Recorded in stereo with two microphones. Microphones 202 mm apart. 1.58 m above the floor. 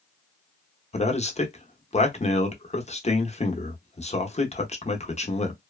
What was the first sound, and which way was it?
A man speaking, 35° left (ahead or behind).